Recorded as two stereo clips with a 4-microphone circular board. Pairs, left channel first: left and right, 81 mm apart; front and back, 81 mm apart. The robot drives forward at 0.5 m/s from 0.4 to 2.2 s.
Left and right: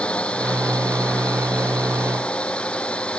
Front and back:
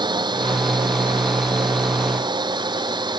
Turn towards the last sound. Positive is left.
turn(degrees=165)